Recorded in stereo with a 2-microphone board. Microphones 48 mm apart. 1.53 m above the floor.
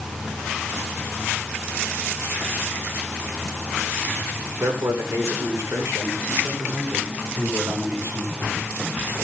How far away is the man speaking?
About 6 m.